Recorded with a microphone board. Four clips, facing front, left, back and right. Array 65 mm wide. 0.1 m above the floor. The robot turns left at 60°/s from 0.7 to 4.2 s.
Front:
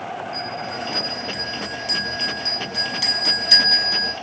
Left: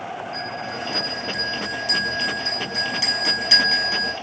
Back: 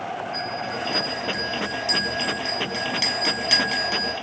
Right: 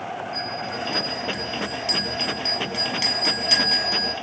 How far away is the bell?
About 3 m.